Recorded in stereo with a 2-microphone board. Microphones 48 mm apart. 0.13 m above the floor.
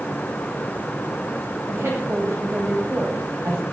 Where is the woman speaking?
70° right (ahead or behind), 8.5 m.